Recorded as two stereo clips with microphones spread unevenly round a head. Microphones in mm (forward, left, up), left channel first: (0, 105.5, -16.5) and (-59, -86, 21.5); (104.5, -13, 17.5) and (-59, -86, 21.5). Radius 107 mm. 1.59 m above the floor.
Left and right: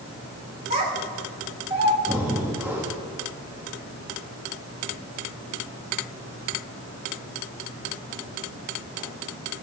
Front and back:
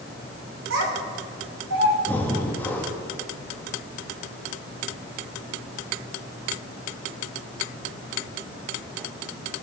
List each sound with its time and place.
0.7 s a child speaking: 150° right, 3 m; by 2.0 s 170° right, 1.7 m
2.1 s breathing: 50° right, 1.0 m